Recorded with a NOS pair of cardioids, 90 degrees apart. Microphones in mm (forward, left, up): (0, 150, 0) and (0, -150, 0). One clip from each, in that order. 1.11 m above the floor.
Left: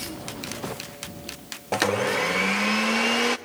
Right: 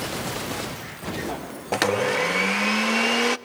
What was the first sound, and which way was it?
A blender, 10° right.